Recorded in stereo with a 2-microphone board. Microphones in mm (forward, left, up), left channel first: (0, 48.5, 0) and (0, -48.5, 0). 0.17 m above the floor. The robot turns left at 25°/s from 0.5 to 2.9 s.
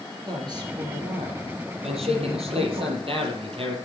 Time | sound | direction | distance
0.3 | a woman speaking | 45° right | 5 m
1.8 | a man speaking | 75° right (ahead or behind) | 5 m